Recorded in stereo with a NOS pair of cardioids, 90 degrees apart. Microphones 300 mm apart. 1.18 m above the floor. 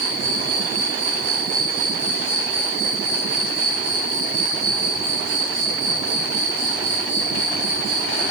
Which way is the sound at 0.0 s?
60° right.